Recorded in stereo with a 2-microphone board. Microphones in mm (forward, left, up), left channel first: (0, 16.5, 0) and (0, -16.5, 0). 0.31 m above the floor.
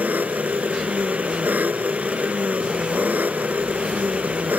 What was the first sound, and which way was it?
An engine running, 65° right (ahead or behind).